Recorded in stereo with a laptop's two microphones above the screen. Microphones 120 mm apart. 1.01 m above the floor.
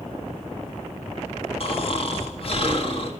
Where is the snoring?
50° left (ahead or behind), 1.3 m.